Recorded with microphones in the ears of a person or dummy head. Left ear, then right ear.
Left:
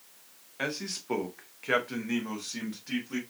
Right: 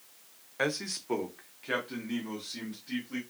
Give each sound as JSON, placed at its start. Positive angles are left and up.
{"t": 0.6, "sound": "a man speaking", "side_deg": -25, "distance_m": 0.5}